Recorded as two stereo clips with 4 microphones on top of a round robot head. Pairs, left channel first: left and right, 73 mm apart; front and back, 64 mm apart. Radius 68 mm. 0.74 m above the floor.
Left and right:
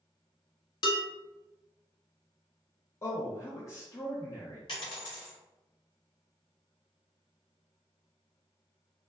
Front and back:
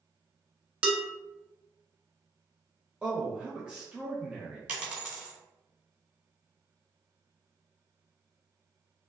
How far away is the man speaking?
About 0.7 m.